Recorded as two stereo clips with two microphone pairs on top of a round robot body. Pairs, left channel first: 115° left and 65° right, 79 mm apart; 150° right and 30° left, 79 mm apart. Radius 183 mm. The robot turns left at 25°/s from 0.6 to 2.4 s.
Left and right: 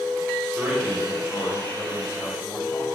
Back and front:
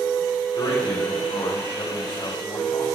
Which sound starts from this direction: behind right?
A man speaking, at 0.6 s.